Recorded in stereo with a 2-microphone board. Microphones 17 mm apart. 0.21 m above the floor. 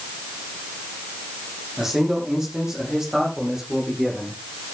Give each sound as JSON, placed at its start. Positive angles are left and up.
{"t": 1.8, "sound": "a man speaking", "side_deg": -25, "distance_m": 8.5}